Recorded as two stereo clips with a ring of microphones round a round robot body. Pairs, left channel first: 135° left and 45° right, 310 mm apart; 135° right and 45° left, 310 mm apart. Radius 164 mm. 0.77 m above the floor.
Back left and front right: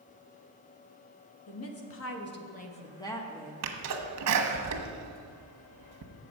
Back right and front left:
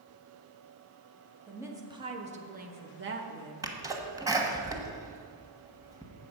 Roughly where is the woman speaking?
Behind left.